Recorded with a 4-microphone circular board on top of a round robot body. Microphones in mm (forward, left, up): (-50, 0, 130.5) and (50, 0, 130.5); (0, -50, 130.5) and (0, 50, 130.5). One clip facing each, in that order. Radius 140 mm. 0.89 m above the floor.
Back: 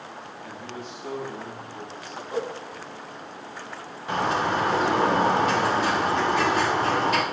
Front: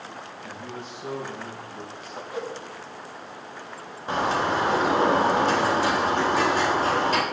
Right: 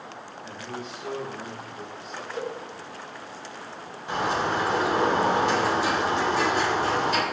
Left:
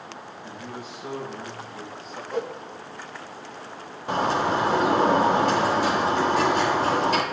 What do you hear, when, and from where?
0.4 s a man speaking: 10° left, 6 m
2.3 s a whoosh: 120° left, 1.6 m
4.1 s a bird: 50° left, 3.5 m